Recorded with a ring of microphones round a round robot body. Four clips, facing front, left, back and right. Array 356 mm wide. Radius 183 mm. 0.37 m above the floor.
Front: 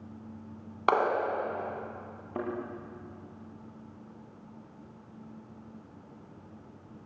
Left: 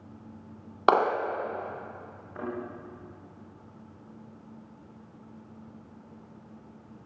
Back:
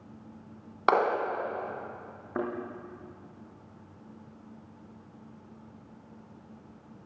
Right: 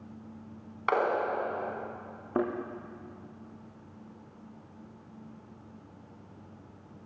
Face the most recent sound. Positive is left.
turn(degrees=-100)